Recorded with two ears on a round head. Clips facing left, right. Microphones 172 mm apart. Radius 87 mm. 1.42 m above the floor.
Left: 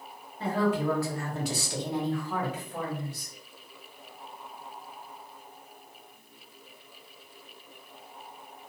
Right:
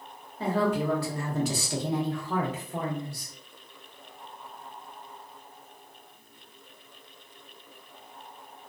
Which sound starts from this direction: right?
A woman speaking, at 0.4 s.